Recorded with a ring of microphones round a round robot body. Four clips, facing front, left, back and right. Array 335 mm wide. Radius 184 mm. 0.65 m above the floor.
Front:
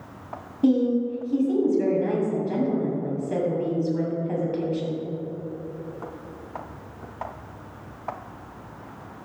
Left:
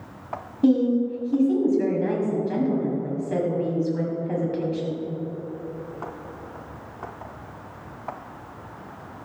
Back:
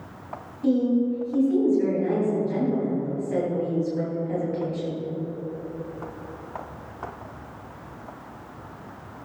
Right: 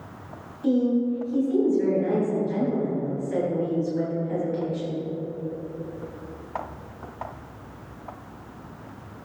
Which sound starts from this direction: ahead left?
A woman speaking, at 0.6 s.